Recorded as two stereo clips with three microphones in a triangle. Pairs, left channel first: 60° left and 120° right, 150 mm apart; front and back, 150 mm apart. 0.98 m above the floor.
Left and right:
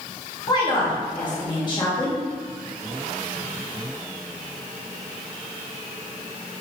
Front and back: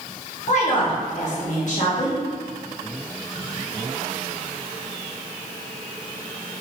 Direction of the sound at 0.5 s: 5° left.